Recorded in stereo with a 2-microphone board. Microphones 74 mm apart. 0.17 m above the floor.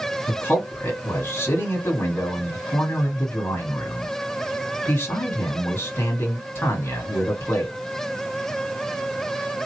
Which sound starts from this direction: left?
A man speaking, at 0.3 s.